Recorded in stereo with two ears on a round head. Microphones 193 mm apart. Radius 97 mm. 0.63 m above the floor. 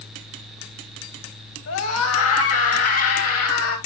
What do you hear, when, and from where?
1.7 s a scream: 70° left (ahead or behind), 4.5 m; by 3.8 s 75° left (ahead or behind), 4.5 m